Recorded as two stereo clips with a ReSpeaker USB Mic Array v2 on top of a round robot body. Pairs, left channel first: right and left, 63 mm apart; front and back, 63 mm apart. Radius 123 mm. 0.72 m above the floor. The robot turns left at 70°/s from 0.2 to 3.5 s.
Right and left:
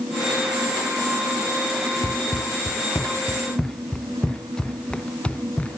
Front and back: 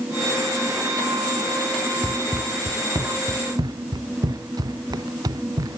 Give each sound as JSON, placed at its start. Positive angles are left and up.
{"t": 2.0, "sound": "running footsteps", "azimuth_deg": -80}